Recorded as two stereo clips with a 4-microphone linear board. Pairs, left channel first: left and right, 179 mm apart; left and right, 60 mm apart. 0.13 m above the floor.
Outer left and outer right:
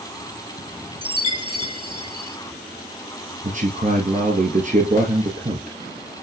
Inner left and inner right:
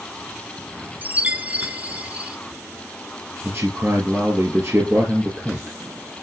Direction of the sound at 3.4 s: 45° right (ahead or behind).